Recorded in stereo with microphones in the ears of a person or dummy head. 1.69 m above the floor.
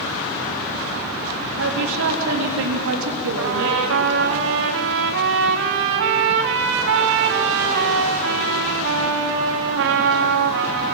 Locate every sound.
1.6 s a woman speaking: 70° right (ahead or behind), 3.5 m
3.4 s a trumpet: 55° right (ahead or behind), 1.6 m